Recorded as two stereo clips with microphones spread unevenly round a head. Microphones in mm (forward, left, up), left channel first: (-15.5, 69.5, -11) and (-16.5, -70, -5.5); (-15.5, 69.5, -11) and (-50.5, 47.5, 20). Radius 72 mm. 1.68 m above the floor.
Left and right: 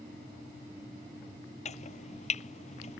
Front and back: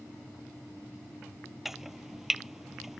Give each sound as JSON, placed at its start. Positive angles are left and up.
{"t": 1.6, "sound": "chopping", "azimuth_deg": 135}